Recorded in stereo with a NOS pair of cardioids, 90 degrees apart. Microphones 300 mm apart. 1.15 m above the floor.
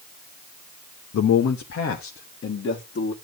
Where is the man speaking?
60° left, 1.1 m; by 3.1 s 40° left, 2.5 m.